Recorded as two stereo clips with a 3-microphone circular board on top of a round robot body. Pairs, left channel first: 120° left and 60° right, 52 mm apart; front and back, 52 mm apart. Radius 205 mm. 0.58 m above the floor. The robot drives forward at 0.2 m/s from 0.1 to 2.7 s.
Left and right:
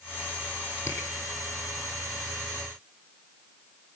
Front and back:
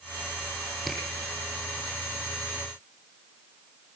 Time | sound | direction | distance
0.9 | a camera shutter | 95° left | 5.5 m